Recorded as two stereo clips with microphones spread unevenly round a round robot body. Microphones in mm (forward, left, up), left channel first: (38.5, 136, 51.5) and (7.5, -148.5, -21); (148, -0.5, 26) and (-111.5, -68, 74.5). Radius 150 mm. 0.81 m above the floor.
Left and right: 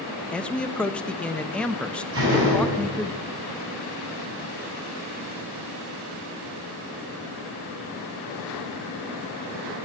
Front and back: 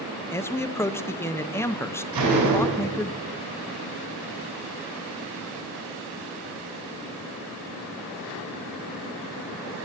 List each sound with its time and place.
0.3 s a man speaking: 30° right, 0.6 m
2.1 s a door slam: 145° right, 5 m